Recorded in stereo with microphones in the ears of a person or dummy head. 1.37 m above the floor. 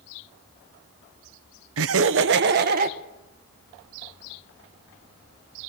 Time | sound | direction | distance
1.8 | laughter | 65° right (ahead or behind) | 0.9 m